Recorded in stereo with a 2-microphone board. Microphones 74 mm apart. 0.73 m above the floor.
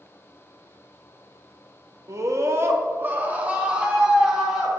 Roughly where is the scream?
Right.